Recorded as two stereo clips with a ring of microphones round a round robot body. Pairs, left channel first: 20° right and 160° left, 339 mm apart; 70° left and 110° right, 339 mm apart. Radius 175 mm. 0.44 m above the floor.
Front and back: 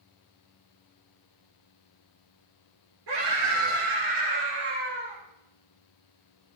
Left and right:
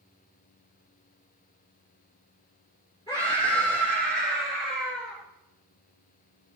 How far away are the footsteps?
I don't hear footsteps.